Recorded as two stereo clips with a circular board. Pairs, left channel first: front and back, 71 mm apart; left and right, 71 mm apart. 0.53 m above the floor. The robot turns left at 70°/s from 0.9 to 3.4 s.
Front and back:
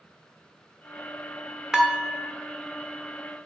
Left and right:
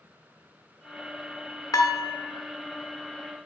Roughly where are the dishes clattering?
Left.